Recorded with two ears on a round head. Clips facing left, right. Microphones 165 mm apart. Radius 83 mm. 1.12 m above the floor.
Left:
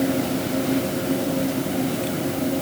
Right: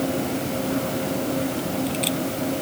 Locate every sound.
Only background noise.